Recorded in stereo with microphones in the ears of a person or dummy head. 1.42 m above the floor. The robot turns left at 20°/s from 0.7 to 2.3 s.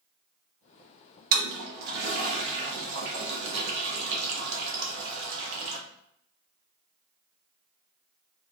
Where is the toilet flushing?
55° right (ahead or behind), 1.0 m; by 5.8 s 75° right (ahead or behind), 1.0 m.